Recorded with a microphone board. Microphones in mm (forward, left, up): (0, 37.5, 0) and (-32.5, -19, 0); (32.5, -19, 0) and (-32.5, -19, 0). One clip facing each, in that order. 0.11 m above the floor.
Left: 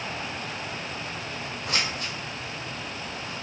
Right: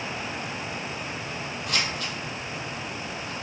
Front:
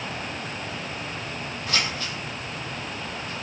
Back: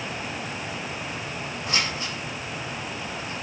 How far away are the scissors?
About 1.0 m.